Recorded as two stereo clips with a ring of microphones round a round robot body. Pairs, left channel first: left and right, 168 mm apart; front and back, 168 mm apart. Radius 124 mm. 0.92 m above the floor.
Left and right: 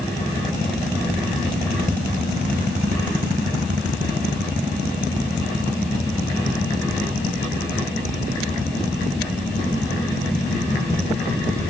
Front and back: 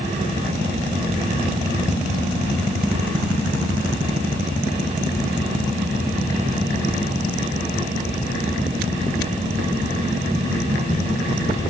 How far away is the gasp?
I don't hear a gasp.